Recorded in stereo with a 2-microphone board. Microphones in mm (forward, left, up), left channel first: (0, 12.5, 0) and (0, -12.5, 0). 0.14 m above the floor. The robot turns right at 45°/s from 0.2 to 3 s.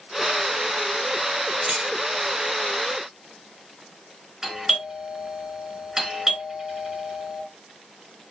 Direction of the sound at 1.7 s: 45° right (ahead or behind).